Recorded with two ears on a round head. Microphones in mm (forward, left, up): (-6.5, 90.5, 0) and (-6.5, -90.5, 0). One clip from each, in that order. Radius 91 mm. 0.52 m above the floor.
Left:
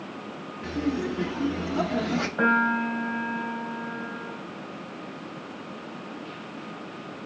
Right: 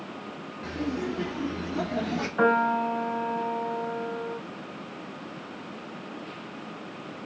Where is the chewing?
I don't hear chewing.